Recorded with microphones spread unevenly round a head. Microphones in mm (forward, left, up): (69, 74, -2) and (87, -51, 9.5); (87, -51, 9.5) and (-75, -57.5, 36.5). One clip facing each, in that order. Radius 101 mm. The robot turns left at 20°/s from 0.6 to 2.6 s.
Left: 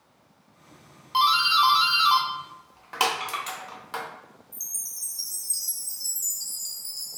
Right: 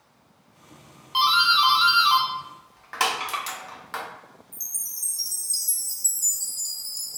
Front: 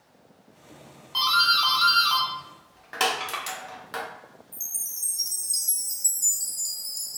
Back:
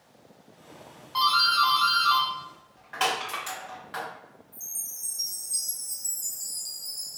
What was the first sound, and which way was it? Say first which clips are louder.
A doorbell: even, back 2 dB; 65° left.